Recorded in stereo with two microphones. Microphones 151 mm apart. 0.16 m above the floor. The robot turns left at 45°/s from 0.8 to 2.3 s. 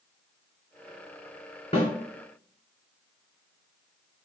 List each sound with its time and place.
1.7 s a snare drum: 40° left (ahead or behind), 1.7 m